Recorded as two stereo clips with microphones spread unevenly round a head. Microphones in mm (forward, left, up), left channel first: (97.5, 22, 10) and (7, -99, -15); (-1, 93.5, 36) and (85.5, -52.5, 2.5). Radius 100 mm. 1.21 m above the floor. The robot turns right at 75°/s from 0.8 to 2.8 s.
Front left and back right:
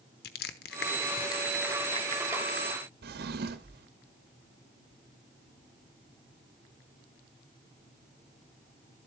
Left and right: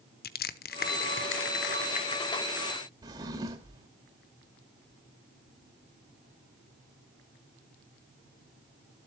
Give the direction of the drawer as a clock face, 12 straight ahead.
5 o'clock.